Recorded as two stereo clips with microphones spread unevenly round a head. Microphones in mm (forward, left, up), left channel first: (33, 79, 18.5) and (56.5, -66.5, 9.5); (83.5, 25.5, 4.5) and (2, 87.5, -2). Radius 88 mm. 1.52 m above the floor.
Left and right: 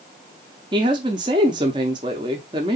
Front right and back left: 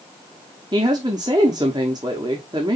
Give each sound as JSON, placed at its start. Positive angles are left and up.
{"t": 0.7, "sound": "a woman speaking", "azimuth_deg": -150, "distance_m": 0.7}